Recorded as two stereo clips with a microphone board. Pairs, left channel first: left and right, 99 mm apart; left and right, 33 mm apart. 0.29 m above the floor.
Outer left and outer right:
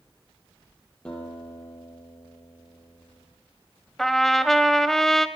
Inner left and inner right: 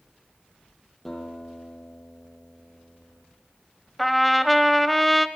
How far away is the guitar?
About 5 m.